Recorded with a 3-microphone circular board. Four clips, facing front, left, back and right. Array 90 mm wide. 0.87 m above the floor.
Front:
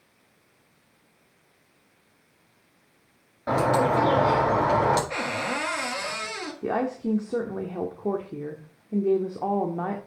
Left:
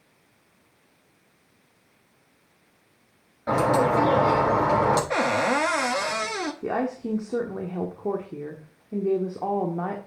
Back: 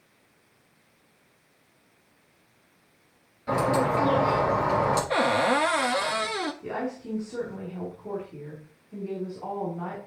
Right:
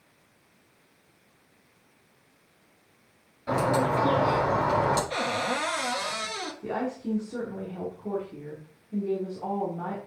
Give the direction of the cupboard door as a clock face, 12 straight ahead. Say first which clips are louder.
Left 6 dB, back 7 dB; 8 o'clock.